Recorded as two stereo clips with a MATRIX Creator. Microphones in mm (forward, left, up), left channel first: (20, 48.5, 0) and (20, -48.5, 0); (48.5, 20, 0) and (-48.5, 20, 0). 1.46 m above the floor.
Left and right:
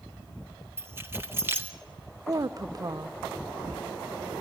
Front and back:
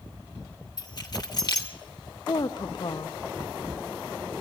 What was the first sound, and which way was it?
Keys jangling, 30° right.